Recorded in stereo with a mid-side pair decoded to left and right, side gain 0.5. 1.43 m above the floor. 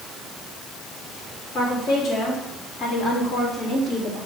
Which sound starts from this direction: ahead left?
A woman speaking, at 1.5 s.